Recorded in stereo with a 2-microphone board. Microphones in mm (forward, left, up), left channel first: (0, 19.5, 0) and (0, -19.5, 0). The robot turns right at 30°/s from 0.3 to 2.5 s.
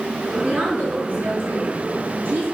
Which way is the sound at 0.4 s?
155° right.